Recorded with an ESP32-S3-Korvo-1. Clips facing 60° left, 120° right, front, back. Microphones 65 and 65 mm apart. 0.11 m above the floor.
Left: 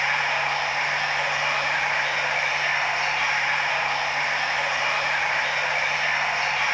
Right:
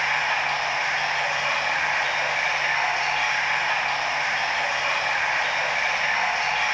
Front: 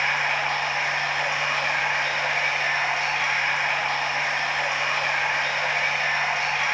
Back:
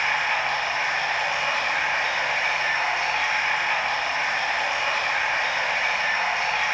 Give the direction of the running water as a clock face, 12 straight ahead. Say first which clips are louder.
Even, even; 10 o'clock.